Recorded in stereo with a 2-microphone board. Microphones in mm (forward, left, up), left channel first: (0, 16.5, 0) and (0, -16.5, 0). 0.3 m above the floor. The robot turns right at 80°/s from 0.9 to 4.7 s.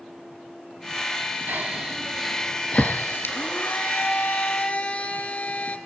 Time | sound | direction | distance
1.5 | breathing | 55° right (ahead or behind) | 2.0 m
3.3 | a blender | 30° left | 3.5 m